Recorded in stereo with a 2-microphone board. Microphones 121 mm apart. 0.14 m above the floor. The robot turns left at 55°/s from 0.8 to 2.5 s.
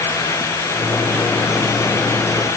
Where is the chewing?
I don't hear chewing.